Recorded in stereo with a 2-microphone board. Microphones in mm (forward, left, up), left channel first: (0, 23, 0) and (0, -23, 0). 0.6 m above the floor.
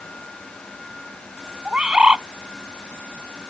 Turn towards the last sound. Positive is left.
turn(degrees=-20)  # may be behind; listen again after turning